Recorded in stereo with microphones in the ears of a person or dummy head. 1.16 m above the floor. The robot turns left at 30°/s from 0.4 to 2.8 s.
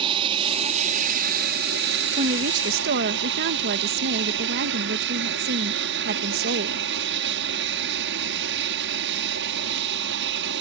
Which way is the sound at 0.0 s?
30° right.